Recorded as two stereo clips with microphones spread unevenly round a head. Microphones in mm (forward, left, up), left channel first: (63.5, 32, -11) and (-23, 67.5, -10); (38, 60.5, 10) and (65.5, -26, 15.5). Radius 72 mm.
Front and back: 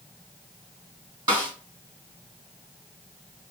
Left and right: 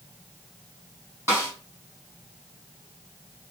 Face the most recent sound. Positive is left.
turn(degrees=-140)